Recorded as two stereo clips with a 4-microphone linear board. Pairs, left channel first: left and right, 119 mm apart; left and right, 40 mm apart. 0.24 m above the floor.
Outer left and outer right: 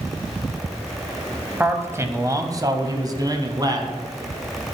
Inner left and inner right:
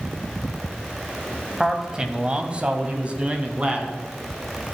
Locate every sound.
1.6 s a man speaking: 15° right (ahead or behind), 1.1 m; by 3.9 s 30° right (ahead or behind), 1.9 m